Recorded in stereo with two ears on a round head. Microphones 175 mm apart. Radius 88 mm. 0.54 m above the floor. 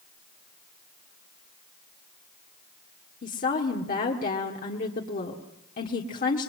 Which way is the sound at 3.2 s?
40° left (ahead or behind).